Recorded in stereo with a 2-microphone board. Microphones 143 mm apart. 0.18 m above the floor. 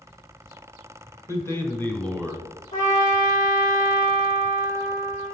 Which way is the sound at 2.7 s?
65° left (ahead or behind).